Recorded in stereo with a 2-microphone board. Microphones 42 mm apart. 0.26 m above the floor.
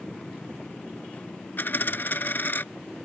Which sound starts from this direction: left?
A dropped coin, at 1.6 s.